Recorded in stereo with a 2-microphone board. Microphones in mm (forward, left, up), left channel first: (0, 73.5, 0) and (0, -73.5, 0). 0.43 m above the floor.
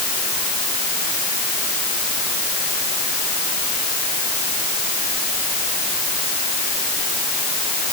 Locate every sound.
Only background noise.